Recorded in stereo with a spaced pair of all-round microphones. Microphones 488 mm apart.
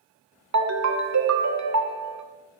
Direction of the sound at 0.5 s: 35° right (ahead or behind).